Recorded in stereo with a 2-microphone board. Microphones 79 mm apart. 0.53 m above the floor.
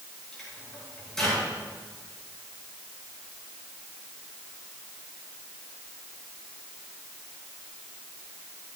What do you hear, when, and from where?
0.3 s a microwave: 5° left (ahead or behind), 9 m